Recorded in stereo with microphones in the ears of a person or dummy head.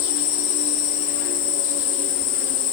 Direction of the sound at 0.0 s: 70° left (ahead or behind).